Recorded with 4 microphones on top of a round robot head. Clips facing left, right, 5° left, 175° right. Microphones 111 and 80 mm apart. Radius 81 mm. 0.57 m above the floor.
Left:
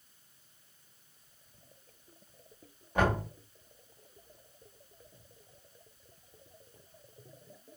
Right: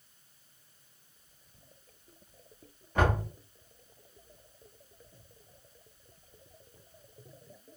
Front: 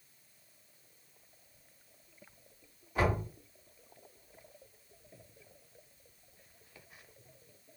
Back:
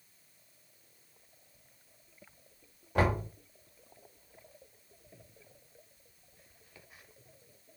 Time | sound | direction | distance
3.0 | knocking | 165° left | 1.3 m